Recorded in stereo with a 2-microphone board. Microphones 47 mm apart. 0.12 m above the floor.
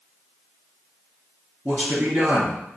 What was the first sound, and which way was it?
A man speaking, 45° right (ahead or behind).